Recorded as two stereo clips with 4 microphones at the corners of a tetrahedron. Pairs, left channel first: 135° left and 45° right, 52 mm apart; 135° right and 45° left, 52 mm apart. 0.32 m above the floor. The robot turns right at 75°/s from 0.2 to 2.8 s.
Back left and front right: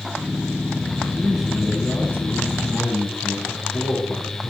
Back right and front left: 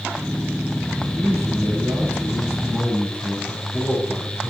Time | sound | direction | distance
1.0 | a man speaking | 5° left | 5 m